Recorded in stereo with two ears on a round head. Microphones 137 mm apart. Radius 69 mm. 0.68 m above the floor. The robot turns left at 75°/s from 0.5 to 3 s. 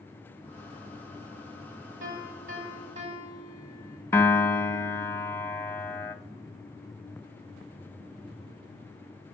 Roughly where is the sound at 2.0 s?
Ahead right.